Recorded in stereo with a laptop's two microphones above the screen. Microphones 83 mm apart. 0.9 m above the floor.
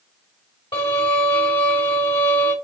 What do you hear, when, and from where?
0.7 s a violin: 70° left (ahead or behind), 4 m